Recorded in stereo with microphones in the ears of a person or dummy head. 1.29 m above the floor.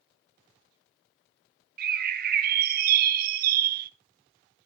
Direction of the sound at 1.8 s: 55° right (ahead or behind).